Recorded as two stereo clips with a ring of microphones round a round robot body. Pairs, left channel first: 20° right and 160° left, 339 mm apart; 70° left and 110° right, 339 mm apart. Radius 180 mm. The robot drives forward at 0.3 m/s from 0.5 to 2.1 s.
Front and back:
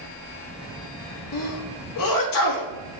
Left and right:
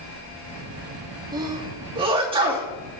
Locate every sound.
1.3 s a sneeze: 35° right, 2.5 m; by 2.7 s 40° right, 2.5 m